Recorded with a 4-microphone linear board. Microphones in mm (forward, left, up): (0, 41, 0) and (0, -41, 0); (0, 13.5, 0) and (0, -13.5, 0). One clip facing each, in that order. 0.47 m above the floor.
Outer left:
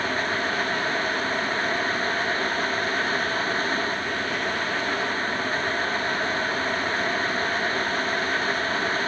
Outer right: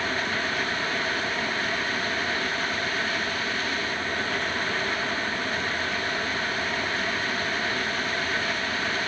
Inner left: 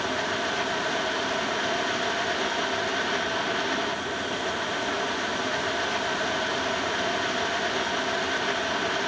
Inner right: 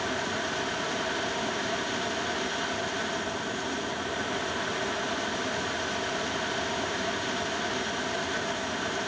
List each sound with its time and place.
Only background noise.